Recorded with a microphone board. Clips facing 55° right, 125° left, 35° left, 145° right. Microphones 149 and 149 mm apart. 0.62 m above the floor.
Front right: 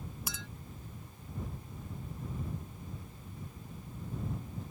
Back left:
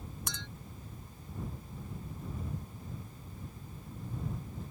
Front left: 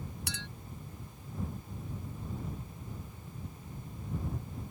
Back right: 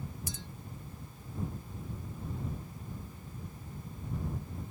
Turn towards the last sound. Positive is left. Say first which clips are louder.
# back left 1 dB, front left 1 dB
turn(degrees=30)